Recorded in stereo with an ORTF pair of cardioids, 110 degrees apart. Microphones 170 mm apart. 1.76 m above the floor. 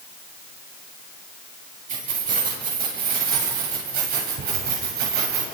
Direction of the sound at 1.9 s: 50° right.